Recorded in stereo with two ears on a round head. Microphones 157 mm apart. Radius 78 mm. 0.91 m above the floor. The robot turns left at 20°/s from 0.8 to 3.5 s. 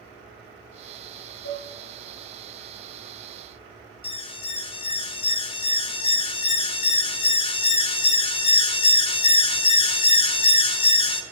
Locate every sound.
1.4 s dishes clattering: 75° left (ahead or behind), 8 m; by 1.7 s 85° left, 8 m
4.0 s an alarm: 30° left (ahead or behind), 0.8 m